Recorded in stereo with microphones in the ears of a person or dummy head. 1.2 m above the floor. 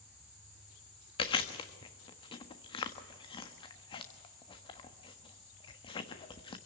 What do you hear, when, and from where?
1.2 s chewing: 25° left (ahead or behind), 1.4 m